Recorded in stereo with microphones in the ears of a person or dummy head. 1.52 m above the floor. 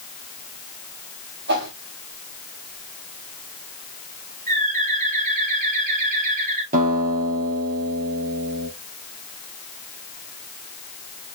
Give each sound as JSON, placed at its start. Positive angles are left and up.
{"t": 1.5, "sound": "a whoosh", "side_deg": -65, "distance_m": 5.5}
{"t": 4.5, "sound": "a bird", "side_deg": -45, "distance_m": 6.0}
{"t": 6.7, "sound": "a guitar", "side_deg": -45, "distance_m": 4.0}